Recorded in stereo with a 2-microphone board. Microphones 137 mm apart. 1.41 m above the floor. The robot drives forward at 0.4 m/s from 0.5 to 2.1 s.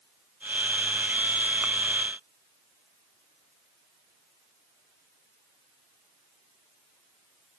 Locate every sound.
Only background noise.